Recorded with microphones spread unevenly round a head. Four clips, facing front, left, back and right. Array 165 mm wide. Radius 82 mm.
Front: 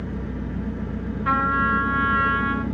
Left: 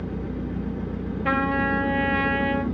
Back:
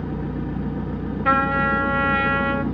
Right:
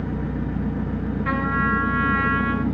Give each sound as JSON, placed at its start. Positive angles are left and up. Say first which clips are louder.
{"t": 0.0, "sound": "an engine running", "louder": "right 3 dB, back 3 dB", "azimuth_deg": -125, "distance_m": 0.9}
{"t": 1.2, "sound": "a trumpet", "louder": "left 1 dB, back 2 dB", "azimuth_deg": 145, "distance_m": 0.7}